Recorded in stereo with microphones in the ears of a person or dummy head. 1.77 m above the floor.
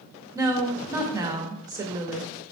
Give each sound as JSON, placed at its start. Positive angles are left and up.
{"t": 0.3, "sound": "a woman speaking", "side_deg": -15, "distance_m": 0.6}